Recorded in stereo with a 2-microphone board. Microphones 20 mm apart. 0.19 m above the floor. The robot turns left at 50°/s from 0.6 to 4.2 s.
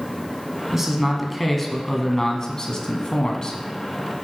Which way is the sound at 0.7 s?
155° right.